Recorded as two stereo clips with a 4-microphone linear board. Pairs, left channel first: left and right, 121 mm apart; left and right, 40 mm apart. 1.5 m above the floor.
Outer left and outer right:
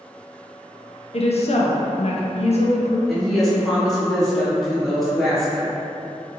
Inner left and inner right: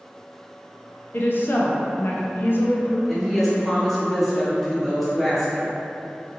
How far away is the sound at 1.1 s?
About 0.6 m.